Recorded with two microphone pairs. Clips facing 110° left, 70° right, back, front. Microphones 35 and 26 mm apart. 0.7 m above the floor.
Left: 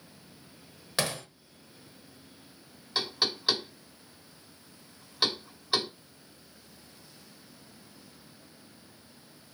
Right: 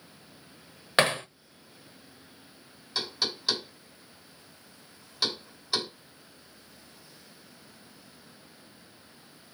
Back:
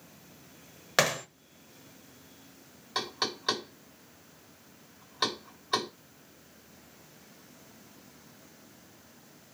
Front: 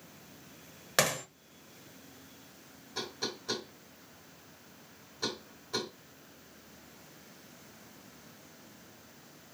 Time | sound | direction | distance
1.0 | hammering | 105° right | 0.6 m
3.0 | knocking | straight behind | 2.5 m